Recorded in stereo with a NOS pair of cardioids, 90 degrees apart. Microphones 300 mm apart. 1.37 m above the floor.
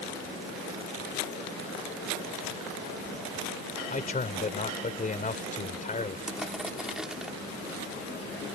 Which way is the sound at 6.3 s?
Straight ahead.